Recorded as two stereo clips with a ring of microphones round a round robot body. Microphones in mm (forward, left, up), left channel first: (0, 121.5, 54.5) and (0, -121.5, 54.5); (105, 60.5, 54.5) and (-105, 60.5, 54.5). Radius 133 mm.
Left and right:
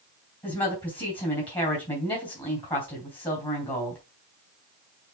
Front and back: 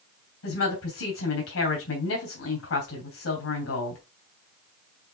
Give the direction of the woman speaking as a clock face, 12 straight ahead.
11 o'clock.